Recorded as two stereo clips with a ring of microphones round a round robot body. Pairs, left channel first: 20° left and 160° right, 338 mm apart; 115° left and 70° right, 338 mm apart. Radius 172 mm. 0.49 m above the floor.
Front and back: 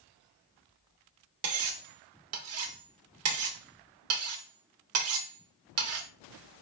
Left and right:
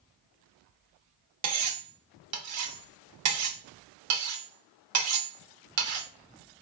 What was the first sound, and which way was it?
Cutlery clinking, 110° right.